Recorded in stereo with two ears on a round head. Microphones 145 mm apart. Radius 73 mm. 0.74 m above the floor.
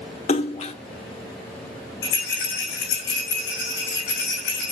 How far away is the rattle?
About 8.5 m.